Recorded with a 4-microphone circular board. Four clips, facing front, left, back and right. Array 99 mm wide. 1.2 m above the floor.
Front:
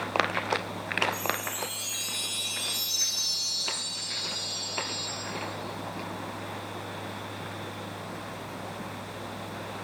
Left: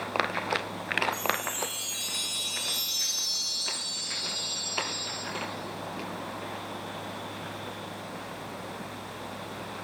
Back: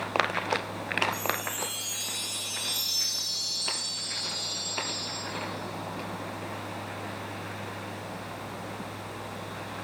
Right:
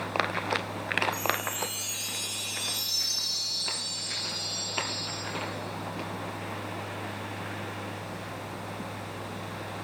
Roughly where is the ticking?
No ticking in this recording.